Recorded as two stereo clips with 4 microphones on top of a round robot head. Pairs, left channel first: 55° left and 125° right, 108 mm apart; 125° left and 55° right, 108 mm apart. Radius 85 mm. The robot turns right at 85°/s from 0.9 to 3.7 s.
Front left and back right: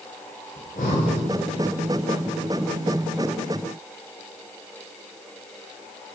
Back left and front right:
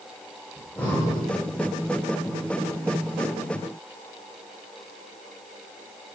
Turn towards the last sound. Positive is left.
turn(degrees=-75)